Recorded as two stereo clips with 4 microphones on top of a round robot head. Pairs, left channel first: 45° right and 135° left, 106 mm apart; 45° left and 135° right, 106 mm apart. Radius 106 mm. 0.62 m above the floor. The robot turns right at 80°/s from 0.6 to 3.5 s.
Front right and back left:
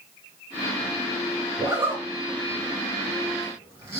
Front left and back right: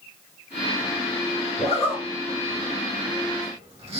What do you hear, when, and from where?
1.6 s a zipper: 50° left, 2.5 m; by 4.0 s 155° right, 2.5 m